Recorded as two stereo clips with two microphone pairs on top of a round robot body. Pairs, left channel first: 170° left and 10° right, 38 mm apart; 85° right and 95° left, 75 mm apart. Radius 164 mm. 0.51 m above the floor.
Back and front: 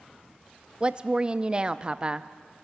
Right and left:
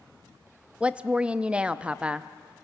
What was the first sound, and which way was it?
A woman speaking, 25° left.